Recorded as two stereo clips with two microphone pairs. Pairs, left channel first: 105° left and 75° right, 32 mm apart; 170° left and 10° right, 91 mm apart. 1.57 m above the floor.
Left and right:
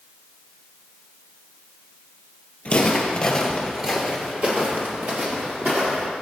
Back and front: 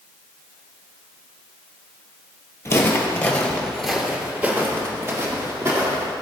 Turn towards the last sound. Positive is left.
turn(degrees=-65)